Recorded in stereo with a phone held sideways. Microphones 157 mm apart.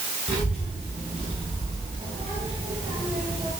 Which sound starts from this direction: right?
A child speaking, at 0.3 s.